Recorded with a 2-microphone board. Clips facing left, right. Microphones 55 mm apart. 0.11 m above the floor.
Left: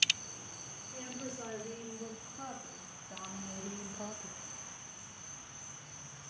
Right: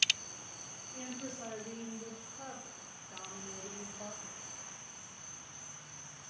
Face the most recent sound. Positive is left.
turn(degrees=45)  # may be behind; listen again after turning